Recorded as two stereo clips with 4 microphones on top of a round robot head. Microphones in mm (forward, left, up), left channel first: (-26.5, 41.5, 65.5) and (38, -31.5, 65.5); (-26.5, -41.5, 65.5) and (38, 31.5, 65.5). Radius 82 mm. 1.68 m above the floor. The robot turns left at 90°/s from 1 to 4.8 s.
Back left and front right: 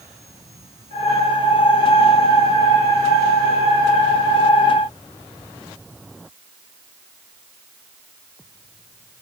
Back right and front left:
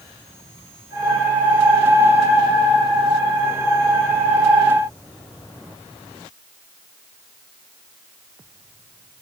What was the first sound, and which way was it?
Only background noise.